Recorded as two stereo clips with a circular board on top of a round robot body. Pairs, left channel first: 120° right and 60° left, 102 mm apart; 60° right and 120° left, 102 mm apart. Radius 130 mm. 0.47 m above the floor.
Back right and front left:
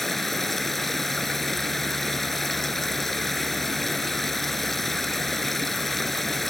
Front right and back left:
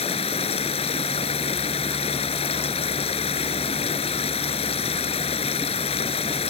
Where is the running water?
35° right.